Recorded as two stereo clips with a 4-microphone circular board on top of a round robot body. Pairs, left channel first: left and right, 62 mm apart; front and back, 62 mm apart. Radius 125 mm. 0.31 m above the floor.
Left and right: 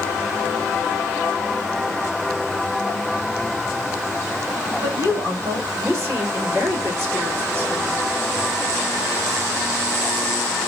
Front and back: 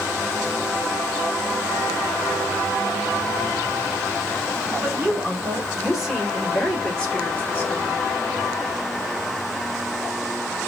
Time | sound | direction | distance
4.8 | a woman speaking | 115° right | 3 m